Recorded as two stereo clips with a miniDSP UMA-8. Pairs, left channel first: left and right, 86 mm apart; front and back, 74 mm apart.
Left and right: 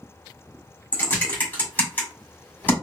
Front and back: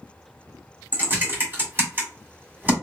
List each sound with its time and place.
0.9 s typing on a keyboard: 140° left, 1.7 m